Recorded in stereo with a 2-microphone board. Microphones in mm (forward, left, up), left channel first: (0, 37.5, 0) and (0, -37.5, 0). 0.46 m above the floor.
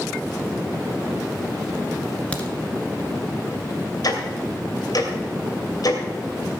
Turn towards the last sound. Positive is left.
turn(degrees=55)  # may be behind; listen again after turning